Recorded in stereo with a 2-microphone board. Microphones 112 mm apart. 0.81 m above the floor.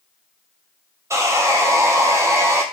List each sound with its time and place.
1.1 s sawing: 25° right (ahead or behind), 0.6 m